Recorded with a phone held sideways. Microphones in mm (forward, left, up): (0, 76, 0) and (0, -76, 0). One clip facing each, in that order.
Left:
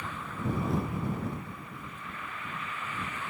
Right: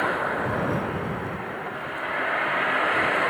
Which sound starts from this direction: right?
A vehicle, at 0.0 s.